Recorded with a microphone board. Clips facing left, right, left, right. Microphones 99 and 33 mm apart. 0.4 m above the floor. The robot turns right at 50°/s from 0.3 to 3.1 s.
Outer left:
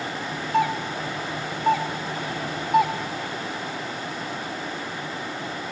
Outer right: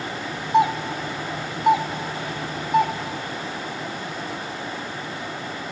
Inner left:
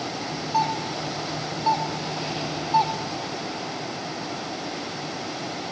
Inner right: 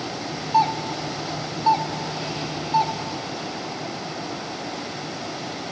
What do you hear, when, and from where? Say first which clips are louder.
0.5 s a doorbell: outer right 4 dB, inner right 4 dB; 20° right (ahead or behind), 1.2 m; by 2.9 s 5° left (ahead or behind), 1.2 m